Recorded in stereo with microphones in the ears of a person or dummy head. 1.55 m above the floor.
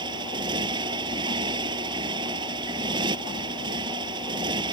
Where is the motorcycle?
20° right (ahead or behind).